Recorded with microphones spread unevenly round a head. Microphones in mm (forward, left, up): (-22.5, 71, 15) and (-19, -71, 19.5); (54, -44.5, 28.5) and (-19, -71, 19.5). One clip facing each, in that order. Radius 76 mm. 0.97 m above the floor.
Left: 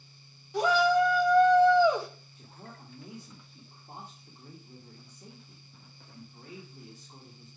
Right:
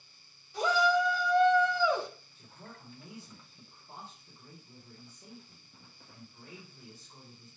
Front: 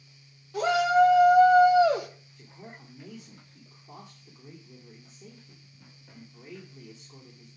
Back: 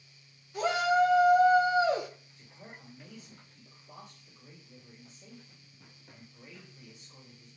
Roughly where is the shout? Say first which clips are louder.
Left 4 dB, front 4 dB; ahead left.